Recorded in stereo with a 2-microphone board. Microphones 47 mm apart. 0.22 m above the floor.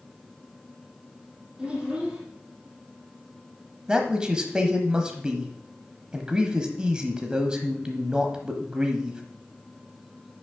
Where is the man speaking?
15° right (ahead or behind), 1.0 m.